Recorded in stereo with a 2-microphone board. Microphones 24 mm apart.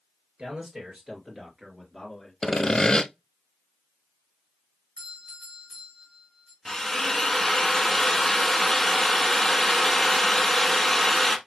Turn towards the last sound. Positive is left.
turn(degrees=5)  # may be behind; listen again after turning